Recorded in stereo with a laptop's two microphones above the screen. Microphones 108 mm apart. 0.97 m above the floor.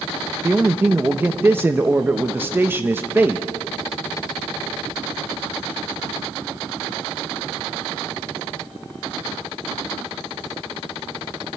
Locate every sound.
0.4 s a man speaking: 20° right (ahead or behind), 0.8 m